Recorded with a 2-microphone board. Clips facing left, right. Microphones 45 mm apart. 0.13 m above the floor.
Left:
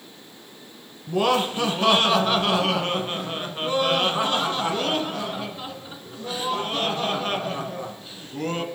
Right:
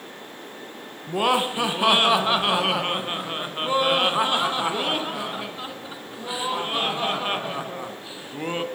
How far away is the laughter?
About 1.5 m.